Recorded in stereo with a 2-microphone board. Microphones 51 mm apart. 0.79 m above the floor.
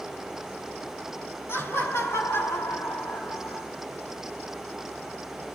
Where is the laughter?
60° left (ahead or behind), 6 m; by 3.7 s 70° left (ahead or behind), 7 m.